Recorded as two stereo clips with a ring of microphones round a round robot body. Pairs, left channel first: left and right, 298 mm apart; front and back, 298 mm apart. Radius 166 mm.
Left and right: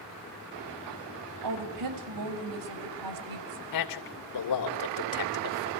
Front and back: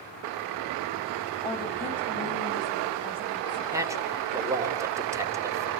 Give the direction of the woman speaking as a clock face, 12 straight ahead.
3 o'clock.